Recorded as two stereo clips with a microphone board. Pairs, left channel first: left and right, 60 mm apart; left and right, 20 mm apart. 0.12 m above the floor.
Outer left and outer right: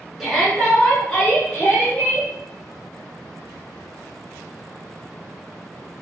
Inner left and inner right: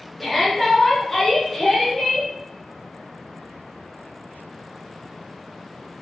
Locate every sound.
0.2 s a shout: 5° right (ahead or behind), 1.3 m; by 2.3 s 25° left (ahead or behind), 2 m